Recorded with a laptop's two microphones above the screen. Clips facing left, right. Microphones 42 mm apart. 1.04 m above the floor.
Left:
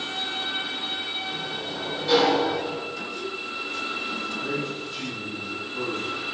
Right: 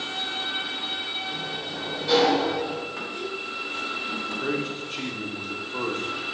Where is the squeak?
35° right (ahead or behind), 2 m.